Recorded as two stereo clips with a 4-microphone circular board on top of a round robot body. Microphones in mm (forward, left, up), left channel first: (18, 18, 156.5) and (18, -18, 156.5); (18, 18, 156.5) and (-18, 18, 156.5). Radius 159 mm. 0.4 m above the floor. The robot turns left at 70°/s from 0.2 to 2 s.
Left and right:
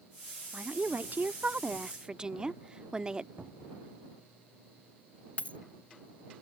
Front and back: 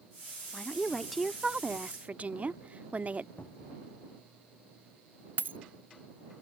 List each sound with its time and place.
0.5 s a woman speaking: 50° right; by 3.3 s 150° right
3.4 s a cupboard door: 40° right
5.4 s a dropped coin: 145° left